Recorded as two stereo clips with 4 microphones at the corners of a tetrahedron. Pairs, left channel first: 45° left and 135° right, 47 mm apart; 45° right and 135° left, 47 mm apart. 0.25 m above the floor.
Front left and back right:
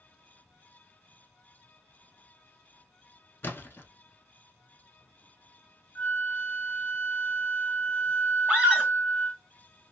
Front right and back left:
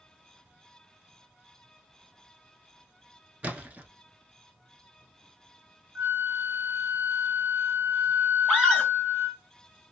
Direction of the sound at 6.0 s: 105° left.